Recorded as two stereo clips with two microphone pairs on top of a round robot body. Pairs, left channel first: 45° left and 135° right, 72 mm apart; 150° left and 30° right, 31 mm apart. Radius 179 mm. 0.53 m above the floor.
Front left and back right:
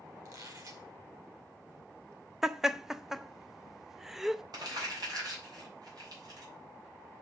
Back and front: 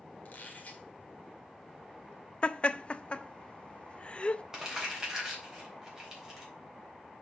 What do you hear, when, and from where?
0.2 s a squeak: 170° right, 2.5 m
2.4 s laughter: 140° left, 0.9 m
4.5 s crumpling: 105° right, 3.5 m